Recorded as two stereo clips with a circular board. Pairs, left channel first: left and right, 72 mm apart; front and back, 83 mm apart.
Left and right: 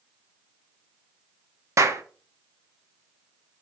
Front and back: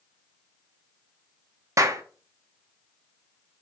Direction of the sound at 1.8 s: 130° right.